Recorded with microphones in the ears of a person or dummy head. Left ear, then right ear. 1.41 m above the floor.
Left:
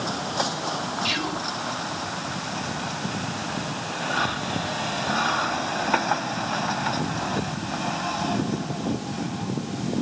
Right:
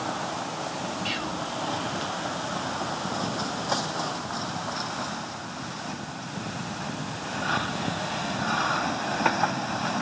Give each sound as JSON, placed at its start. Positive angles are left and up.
{"t": 1.1, "sound": "whispering", "side_deg": 25, "distance_m": 2.0}